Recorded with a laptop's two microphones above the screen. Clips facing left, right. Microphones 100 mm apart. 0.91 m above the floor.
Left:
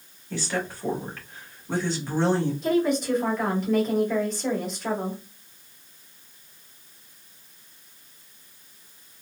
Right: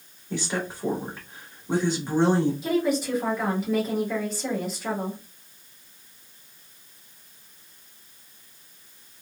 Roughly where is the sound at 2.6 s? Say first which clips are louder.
Left 1 dB; centre.